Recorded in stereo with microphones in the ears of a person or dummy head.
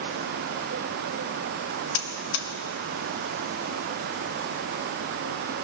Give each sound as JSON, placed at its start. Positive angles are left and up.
{"t": 1.9, "sound": "a buzzer", "side_deg": 60, "distance_m": 1.0}